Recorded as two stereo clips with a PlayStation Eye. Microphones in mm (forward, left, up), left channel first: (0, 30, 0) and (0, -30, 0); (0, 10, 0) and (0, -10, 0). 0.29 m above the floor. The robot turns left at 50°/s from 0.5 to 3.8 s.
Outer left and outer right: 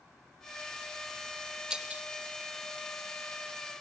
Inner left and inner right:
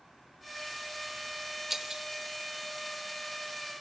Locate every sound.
1.7 s breaking glass: 10° right (ahead or behind), 0.7 m; by 2.0 s 30° right (ahead or behind), 0.7 m